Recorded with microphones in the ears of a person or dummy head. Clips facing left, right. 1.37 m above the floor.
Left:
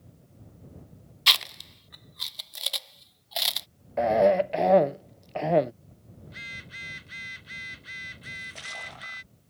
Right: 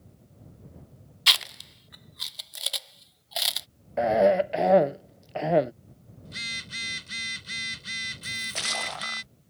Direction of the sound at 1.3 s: Centre (ahead or behind).